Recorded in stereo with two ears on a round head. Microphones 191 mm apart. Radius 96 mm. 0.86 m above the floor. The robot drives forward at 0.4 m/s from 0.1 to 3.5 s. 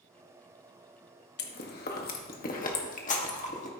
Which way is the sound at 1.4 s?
55° left (ahead or behind).